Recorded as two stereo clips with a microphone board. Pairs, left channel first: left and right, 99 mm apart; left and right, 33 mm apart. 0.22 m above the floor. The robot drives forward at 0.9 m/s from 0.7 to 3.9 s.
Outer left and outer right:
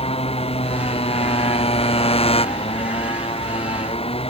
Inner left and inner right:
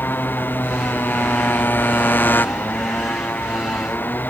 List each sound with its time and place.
0.0 s a motorcycle: 90° left; by 4.3 s 80° left